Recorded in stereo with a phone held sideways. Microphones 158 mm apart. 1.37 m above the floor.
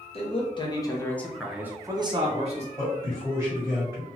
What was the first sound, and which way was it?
A man speaking, 40° left (ahead or behind).